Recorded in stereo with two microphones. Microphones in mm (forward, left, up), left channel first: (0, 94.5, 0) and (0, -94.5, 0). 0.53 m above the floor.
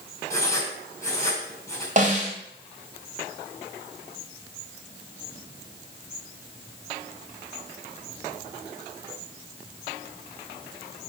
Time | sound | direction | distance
0.3 | writing | 15° left (ahead or behind) | 4 m
2.0 | a snare drum | 40° right (ahead or behind) | 3 m